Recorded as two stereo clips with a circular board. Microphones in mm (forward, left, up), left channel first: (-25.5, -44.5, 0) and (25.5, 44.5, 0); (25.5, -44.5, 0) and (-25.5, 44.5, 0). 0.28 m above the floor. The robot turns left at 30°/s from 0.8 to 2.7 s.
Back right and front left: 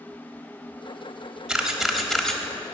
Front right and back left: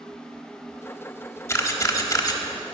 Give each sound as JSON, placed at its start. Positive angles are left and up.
{"t": 1.5, "sound": "a camera shutter", "azimuth_deg": -20, "distance_m": 1.2}